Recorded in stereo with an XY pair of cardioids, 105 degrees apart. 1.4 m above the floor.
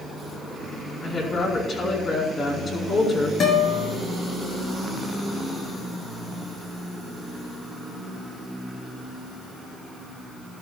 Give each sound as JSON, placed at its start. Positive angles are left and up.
{"t": 1.0, "sound": "a woman speaking", "azimuth_deg": 45, "distance_m": 4.5}
{"t": 3.4, "sound": "a guitar", "azimuth_deg": 50, "distance_m": 5.0}